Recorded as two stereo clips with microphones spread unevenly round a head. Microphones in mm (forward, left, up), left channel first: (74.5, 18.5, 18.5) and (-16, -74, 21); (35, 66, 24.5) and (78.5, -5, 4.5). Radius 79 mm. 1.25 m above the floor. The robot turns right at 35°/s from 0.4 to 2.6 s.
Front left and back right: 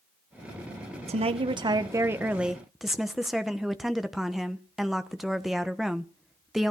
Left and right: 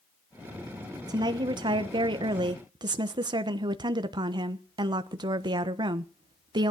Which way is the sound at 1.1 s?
100° right.